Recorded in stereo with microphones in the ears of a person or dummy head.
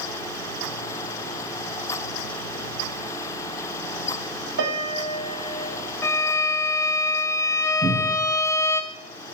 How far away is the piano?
About 3.5 m.